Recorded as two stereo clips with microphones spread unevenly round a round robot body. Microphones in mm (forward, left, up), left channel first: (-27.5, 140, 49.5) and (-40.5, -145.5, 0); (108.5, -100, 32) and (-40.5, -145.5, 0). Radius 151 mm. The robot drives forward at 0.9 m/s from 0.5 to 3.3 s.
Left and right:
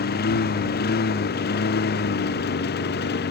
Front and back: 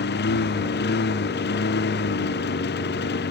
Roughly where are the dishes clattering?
I don't hear dishes clattering.